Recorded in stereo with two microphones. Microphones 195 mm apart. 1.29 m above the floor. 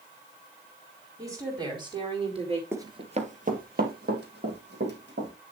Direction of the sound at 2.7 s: 10° right (ahead or behind).